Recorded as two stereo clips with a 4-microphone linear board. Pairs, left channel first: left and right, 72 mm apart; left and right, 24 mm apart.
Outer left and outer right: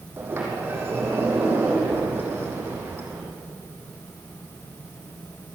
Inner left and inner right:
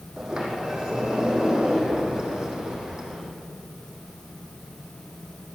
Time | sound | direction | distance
0.2 | a sliding door | 30° right (ahead or behind) | 6 m